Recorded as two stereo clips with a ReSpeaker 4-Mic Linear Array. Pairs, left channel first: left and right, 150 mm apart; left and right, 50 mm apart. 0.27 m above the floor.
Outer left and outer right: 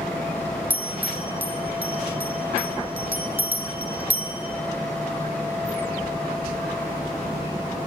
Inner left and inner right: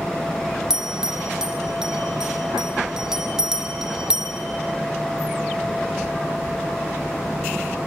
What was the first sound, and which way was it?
A bell, 10° right (ahead or behind).